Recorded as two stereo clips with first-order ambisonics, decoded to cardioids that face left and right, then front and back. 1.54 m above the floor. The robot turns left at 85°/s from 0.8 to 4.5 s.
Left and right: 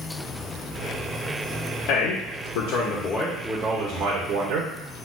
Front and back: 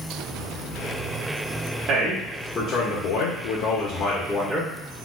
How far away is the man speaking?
About 1.0 m.